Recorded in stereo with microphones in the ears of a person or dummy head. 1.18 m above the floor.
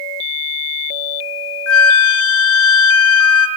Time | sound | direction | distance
1.7 | a flute | 70° left (ahead or behind) | 1.3 m